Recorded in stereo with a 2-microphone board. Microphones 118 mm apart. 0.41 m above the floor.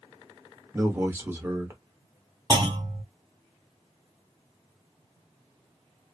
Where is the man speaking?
20° right (ahead or behind), 0.8 m.